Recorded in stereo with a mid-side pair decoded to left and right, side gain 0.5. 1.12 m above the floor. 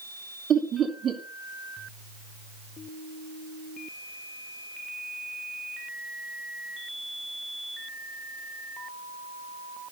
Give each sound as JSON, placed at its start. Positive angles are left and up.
{"t": 0.5, "sound": "laughter", "azimuth_deg": -50, "distance_m": 3.0}